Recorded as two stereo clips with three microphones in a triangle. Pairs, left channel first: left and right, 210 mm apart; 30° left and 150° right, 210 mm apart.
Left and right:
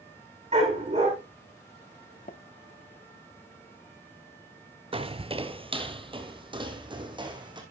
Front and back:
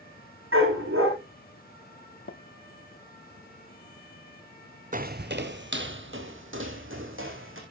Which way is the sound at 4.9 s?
140° right.